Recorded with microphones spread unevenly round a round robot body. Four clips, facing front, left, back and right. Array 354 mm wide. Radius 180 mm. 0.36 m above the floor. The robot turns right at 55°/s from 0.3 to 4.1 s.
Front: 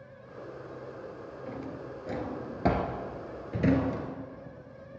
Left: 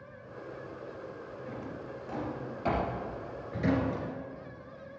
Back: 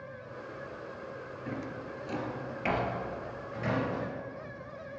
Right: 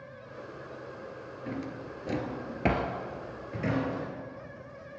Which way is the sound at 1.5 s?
120° right.